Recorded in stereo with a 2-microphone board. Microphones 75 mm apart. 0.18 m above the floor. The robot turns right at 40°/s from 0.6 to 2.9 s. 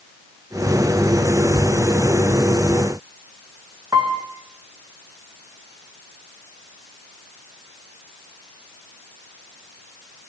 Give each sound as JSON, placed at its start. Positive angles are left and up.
{"t": 3.9, "sound": "a piano", "side_deg": -50, "distance_m": 5.5}